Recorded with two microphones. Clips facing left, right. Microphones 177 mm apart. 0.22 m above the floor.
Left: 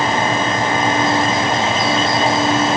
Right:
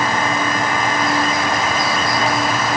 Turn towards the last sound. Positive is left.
No sound to turn to.